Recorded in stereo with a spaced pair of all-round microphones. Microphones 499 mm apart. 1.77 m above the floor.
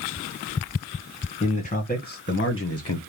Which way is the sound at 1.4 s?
15° left (ahead or behind).